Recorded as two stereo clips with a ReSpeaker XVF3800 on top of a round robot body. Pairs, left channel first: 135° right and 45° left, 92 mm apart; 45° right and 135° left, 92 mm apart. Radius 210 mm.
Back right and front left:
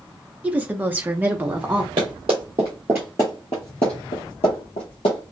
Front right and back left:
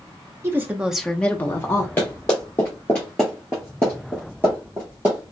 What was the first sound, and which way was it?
A woman speaking, 105° left.